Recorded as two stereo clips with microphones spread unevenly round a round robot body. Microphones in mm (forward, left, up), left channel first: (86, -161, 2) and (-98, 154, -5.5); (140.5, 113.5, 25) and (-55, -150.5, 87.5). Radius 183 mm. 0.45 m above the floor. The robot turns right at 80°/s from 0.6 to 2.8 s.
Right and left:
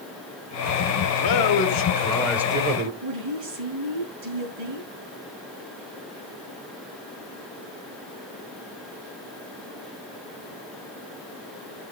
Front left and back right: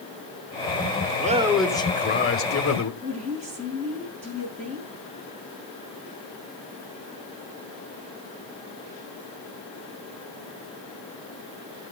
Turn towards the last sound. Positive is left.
turn(degrees=160)